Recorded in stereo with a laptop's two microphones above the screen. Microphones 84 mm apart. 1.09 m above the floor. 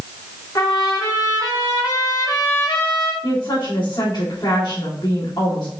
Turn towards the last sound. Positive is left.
turn(degrees=60)  # may be behind; listen again after turning